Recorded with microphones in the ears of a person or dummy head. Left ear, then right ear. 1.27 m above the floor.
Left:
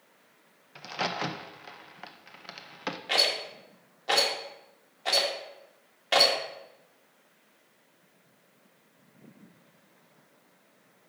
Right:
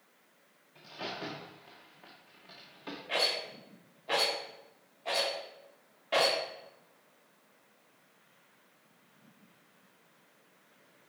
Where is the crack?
50° left (ahead or behind), 0.6 m.